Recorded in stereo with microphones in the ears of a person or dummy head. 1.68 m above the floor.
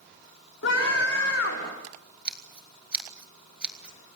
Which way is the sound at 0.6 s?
75° left (ahead or behind).